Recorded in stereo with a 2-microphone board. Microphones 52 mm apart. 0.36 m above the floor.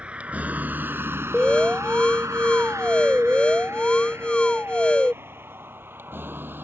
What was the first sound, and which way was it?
A vehicle, 25° right (ahead or behind).